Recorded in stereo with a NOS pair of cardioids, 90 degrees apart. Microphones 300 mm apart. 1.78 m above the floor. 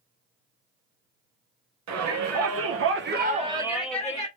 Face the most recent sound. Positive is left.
turn(degrees=15)